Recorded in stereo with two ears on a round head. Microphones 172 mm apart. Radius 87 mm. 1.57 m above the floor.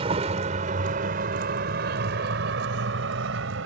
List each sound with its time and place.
0.0 s a vehicle: 30° right (ahead or behind); by 3.7 s 70° right (ahead or behind)